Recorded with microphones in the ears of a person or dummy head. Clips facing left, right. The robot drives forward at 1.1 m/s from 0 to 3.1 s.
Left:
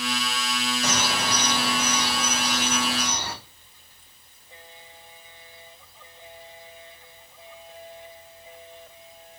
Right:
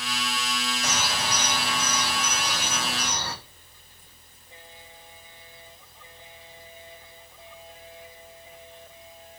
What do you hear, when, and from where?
0.8 s a bird: 55° left (ahead or behind), 1.2 m; by 3.3 s 15° left (ahead or behind), 3.5 m